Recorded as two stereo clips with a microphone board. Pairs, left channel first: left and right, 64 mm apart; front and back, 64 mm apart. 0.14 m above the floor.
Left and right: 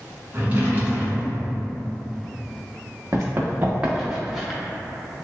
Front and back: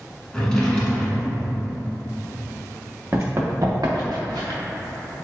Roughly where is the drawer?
Right.